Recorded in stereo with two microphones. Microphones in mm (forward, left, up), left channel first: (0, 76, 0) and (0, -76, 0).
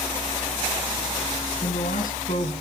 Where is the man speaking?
75° left (ahead or behind), 3.5 m.